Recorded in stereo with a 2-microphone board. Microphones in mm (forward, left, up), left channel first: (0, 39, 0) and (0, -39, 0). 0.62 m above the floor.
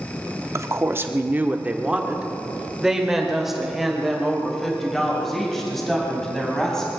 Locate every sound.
0.6 s a woman speaking: 35° right (ahead or behind), 1.0 m; by 6.9 s 5° left (ahead or behind), 4 m